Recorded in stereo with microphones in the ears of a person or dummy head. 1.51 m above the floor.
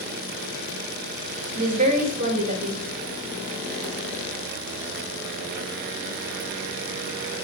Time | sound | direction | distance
1.6 | a woman speaking | 45° right (ahead or behind) | 2 m